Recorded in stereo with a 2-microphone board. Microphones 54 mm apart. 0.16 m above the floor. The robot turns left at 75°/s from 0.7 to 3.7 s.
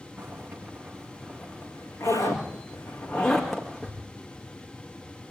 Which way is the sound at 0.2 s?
30° right (ahead or behind).